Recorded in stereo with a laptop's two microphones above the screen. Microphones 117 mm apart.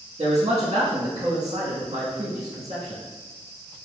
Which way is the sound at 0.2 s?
70° right (ahead or behind).